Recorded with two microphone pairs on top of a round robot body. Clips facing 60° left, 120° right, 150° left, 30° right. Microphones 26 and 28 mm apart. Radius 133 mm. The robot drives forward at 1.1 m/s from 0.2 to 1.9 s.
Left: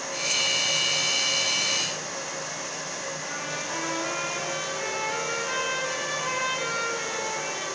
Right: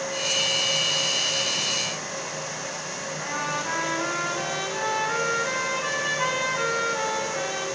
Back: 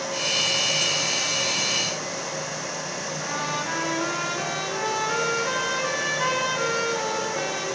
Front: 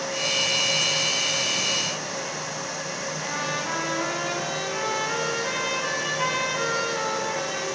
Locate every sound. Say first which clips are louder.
3.2 s a trumpet: right 4 dB, back 1 dB; 95° right, 9 m